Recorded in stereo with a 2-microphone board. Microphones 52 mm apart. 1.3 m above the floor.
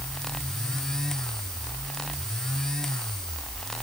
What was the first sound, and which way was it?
Only background noise.